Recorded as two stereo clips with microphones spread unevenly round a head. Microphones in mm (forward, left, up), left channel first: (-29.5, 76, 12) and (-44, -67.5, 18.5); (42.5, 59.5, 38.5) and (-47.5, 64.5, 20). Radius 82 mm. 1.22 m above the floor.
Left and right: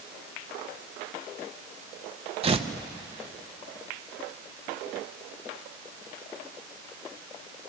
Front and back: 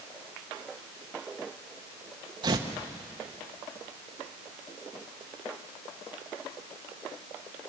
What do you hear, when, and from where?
2.4 s tearing paper: 145° right, 1.0 m